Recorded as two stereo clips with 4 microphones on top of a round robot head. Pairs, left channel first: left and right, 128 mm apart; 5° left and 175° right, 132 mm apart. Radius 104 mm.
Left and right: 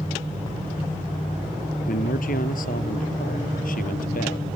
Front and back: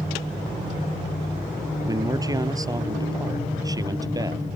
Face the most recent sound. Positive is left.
turn(degrees=120)